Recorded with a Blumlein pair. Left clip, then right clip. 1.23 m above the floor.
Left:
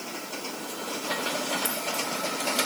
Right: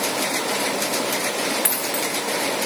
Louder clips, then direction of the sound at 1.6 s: Right 5 dB; 60° right.